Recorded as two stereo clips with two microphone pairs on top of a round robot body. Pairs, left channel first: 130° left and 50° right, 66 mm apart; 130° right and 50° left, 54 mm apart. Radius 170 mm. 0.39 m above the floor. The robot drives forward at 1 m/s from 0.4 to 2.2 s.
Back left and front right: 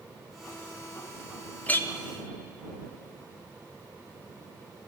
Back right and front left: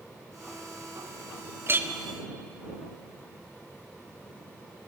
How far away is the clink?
About 0.9 m.